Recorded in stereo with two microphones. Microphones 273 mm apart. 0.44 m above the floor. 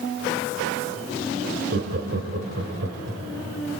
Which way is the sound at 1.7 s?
50° right (ahead or behind).